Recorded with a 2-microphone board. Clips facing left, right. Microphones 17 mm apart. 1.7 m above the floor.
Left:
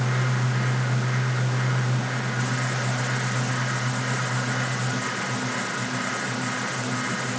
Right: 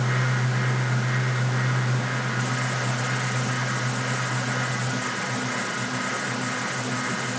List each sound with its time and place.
Only background noise.